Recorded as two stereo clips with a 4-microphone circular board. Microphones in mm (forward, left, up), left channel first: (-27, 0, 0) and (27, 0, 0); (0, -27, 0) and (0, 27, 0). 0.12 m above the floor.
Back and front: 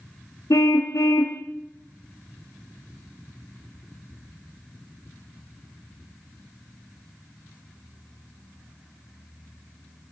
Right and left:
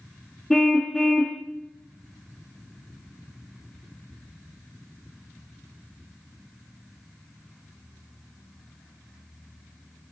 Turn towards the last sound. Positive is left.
turn(degrees=-175)